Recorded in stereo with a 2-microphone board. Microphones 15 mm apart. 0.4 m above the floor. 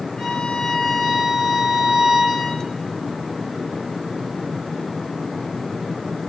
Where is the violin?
80° left, 6.5 m.